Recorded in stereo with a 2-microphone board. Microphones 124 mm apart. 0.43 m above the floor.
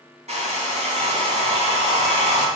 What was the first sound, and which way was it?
A hair dryer, 65° right (ahead or behind).